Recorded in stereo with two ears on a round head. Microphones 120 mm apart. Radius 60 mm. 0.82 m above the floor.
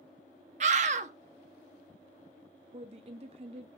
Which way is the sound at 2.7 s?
45° right (ahead or behind).